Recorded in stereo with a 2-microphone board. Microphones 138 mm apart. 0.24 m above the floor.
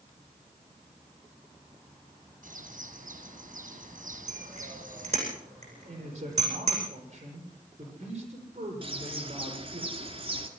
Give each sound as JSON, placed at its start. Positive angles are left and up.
{"t": 2.4, "sound": "a bird", "side_deg": -70, "distance_m": 4.0}
{"t": 4.3, "sound": "a bicycle bell", "side_deg": -50, "distance_m": 9.0}
{"t": 5.9, "sound": "a man speaking", "side_deg": -50, "distance_m": 9.5}
{"t": 8.8, "sound": "a bird", "side_deg": -40, "distance_m": 2.5}